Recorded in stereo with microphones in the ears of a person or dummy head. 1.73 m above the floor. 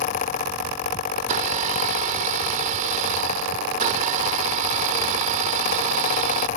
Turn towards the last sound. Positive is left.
turn(degrees=-50)  # may be behind; listen again after turning